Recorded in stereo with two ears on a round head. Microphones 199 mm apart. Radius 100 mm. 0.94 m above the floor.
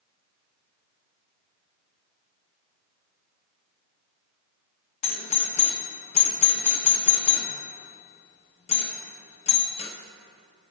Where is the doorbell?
30° left (ahead or behind), 1.0 m.